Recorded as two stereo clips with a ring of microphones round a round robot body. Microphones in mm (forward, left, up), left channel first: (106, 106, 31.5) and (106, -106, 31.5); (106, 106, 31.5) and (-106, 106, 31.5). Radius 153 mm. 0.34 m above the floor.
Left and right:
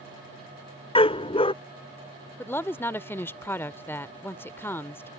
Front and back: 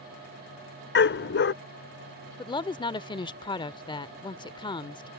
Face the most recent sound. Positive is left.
turn(degrees=25)